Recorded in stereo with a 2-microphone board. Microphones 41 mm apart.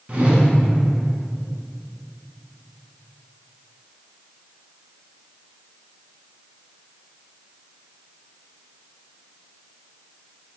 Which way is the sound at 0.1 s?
35° right (ahead or behind).